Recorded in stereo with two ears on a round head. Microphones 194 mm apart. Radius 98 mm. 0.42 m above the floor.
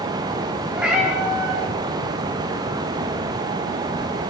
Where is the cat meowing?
5° right (ahead or behind), 7 m.